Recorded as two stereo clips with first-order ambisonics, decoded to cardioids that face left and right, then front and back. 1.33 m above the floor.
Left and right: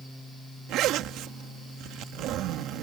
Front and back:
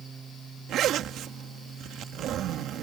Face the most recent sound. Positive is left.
turn(degrees=-130)